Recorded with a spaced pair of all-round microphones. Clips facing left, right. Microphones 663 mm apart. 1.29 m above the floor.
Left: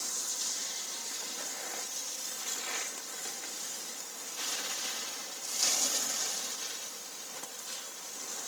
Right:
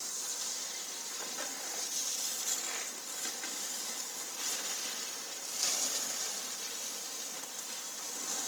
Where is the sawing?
No sawing in this recording.